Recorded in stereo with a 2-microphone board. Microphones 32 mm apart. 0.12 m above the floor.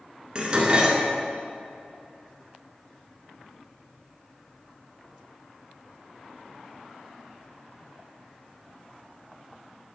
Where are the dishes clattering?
30° right (ahead or behind), 1.0 m.